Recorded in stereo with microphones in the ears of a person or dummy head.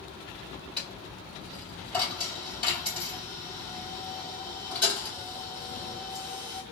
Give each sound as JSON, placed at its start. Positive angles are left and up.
{"t": 0.8, "sound": "a dropped coin", "side_deg": 15, "distance_m": 2.5}